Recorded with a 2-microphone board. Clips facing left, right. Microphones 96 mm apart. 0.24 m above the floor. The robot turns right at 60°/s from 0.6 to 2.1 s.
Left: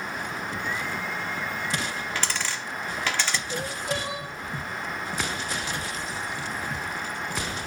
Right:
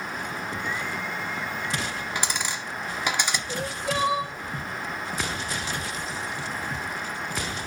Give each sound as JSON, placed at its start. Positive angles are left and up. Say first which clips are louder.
{"t": 2.1, "sound": "a dropped coin", "louder": "right 1 dB", "side_deg": -15, "distance_m": 0.8}
{"t": 3.5, "sound": "crying", "louder": "right 1 dB", "side_deg": -80, "distance_m": 5.5}